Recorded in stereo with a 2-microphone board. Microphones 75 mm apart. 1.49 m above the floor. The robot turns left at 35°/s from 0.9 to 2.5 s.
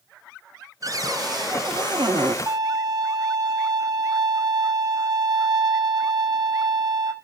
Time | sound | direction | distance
0.8 | a cupboard door | 55° right | 0.5 m
2.5 | a violin | 55° right (ahead or behind) | 1.3 m